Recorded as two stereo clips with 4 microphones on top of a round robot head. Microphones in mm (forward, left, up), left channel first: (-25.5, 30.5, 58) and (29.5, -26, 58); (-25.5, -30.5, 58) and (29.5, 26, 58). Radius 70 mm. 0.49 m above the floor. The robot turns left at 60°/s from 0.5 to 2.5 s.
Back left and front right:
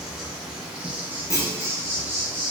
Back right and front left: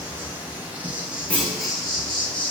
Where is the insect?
30° left, 1.0 m; by 2.5 s 90° right, 1.0 m.